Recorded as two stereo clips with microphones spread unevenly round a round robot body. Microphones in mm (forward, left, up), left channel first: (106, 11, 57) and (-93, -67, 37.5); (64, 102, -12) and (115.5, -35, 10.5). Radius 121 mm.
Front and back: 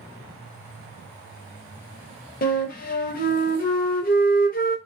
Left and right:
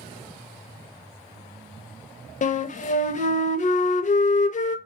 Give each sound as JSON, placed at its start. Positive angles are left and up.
{"t": 2.4, "sound": "a flute", "azimuth_deg": 75, "distance_m": 0.5}